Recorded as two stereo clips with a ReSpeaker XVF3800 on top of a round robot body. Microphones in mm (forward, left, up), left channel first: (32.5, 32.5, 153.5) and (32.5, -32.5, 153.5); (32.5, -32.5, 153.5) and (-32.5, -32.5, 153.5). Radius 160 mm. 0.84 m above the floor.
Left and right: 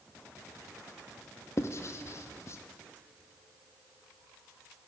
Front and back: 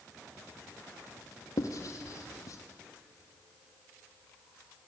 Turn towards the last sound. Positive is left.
turn(degrees=40)